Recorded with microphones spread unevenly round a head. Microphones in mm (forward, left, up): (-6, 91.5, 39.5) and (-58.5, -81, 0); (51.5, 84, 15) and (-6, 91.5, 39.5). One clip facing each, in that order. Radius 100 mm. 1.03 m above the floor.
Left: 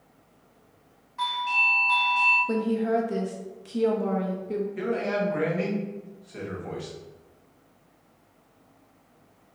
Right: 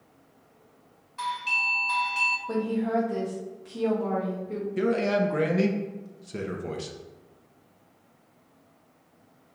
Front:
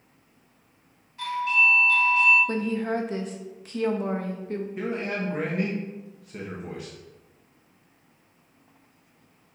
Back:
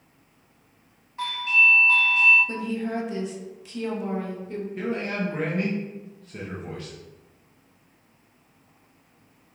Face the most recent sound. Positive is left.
turn(degrees=-75)